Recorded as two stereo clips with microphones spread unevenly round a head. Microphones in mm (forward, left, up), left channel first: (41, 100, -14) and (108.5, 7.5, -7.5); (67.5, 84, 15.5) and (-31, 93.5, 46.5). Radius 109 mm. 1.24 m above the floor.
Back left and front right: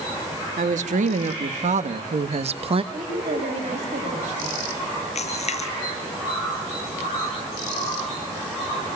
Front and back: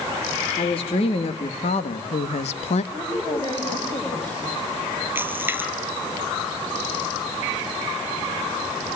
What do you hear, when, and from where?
0.6 s a woman speaking: 55° right, 2 m; by 2.8 s 15° right, 1.1 m
2.9 s a woman speaking: 90° right, 5.5 m
5.2 s a splash: 105° left, 8 m